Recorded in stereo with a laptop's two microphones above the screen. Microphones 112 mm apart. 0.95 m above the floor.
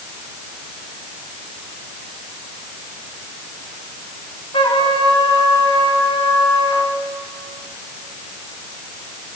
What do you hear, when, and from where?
4.5 s a trumpet: 55° left (ahead or behind), 2 m